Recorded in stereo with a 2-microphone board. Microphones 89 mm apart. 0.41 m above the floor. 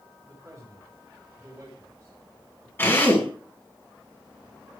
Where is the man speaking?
40° right (ahead or behind), 4.5 m.